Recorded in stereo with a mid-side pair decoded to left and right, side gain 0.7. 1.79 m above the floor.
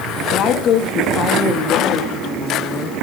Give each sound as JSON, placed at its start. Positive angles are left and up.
{"t": 0.3, "sound": "a woman speaking", "azimuth_deg": 50, "distance_m": 3.0}